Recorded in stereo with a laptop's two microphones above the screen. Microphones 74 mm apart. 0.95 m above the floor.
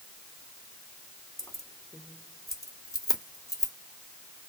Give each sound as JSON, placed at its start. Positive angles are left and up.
{"t": 1.4, "sound": "keys jangling", "side_deg": 45, "distance_m": 0.7}